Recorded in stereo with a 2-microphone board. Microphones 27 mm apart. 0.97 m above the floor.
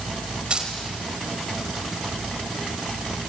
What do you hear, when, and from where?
0.5 s keys jangling: 45° right (ahead or behind), 4 m